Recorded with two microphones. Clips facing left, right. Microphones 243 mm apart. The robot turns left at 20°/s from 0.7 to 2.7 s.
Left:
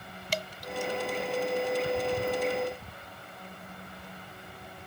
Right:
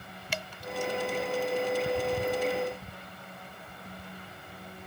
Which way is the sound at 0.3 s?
40° left (ahead or behind).